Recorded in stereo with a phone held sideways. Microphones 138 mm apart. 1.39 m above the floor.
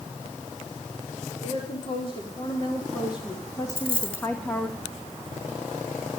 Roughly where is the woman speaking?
Left.